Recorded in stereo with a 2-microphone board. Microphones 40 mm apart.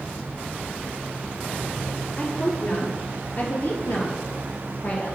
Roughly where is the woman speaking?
Left.